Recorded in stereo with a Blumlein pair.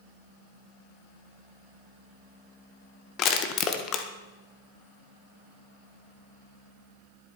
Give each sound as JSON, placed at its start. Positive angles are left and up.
{"t": 3.2, "sound": "crushing", "azimuth_deg": 35, "distance_m": 1.6}